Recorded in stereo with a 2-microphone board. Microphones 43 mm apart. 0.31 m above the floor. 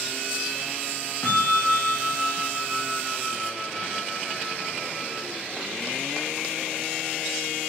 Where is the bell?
80° left, 3.5 m.